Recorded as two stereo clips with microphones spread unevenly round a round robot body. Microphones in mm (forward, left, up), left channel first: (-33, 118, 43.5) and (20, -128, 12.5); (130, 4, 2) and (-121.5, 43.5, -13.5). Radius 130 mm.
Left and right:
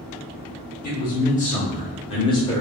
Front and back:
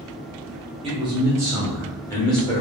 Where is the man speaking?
135° left, 1.4 m; by 2.6 s 30° left, 1.3 m.